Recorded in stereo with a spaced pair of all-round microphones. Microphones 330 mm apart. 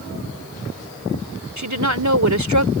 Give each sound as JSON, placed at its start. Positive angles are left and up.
{"t": 1.6, "sound": "a woman speaking", "side_deg": -60}